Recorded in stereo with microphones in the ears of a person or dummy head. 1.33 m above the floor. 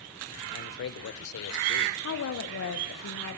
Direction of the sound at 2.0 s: 80° left.